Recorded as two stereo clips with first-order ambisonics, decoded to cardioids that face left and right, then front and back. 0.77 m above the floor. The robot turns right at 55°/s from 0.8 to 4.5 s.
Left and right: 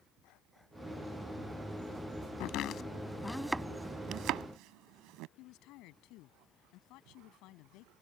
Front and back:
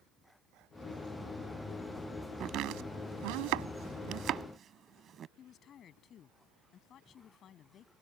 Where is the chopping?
125° left; by 5.3 s 120° right.